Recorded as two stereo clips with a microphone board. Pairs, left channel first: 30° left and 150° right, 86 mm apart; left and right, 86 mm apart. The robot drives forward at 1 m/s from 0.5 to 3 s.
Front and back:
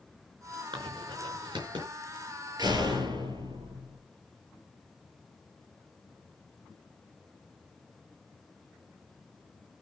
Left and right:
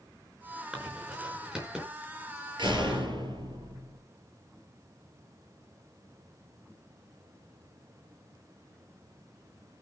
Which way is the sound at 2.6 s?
115° right.